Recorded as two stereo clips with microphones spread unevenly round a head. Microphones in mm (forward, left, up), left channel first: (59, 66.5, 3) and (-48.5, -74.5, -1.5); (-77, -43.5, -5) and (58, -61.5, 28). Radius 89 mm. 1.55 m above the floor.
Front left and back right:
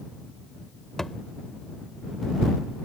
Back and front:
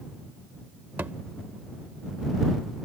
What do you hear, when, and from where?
1.0 s a thud: 30° right